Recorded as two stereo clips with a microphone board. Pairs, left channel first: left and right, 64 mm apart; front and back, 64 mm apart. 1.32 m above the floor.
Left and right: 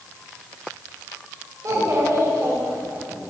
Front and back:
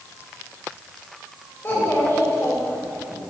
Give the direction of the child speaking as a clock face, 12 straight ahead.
2 o'clock.